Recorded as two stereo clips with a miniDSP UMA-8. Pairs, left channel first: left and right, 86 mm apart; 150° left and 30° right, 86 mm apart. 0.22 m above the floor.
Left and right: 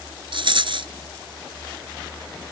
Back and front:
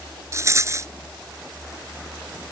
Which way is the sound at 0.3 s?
85° right.